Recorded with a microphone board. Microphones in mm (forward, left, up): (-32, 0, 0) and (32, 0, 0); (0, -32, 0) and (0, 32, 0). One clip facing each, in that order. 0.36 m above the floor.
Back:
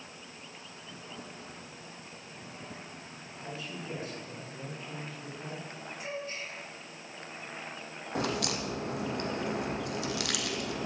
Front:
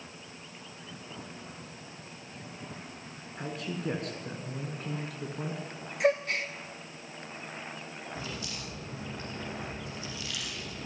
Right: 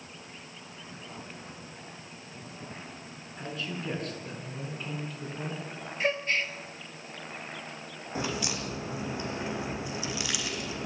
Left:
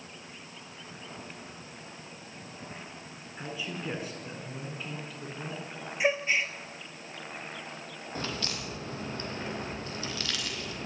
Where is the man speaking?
15° left, 5.5 m; by 5.6 s 10° right, 5 m.